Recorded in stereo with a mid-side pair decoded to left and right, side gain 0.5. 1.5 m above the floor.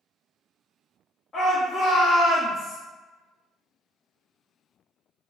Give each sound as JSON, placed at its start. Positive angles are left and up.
{"t": 1.3, "sound": "a shout", "azimuth_deg": 40, "distance_m": 0.9}